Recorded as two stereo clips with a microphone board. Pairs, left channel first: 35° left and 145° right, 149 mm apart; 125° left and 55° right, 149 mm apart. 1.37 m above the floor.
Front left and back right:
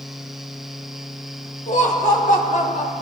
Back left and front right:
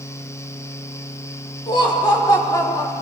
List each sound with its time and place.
1.7 s laughter: 65° left, 4.5 m; by 2.9 s 55° left, 3 m